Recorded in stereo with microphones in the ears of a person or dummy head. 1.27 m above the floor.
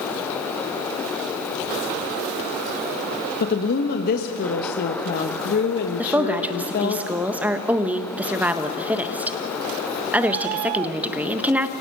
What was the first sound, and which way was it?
A woman speaking, 50° left (ahead or behind).